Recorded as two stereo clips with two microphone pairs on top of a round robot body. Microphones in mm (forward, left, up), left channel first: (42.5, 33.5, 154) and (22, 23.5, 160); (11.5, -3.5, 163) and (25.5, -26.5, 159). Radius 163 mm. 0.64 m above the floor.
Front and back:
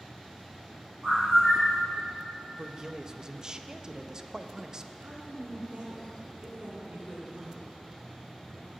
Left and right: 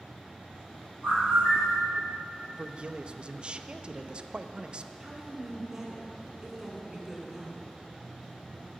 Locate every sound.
1.0 s a bird: 175° left, 3.5 m
2.6 s a man speaking: 85° right, 0.7 m
5.0 s a woman speaking: 130° right, 2.5 m